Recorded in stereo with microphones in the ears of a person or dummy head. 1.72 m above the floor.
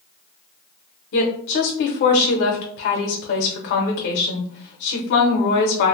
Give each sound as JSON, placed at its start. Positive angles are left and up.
{"t": 1.1, "sound": "a woman speaking", "side_deg": 55, "distance_m": 0.9}